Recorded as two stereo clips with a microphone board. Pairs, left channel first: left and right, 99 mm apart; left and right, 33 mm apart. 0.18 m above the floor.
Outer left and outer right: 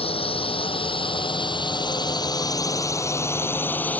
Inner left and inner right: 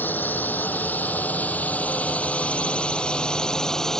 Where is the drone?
70° left (ahead or behind); by 4.0 s 15° left (ahead or behind).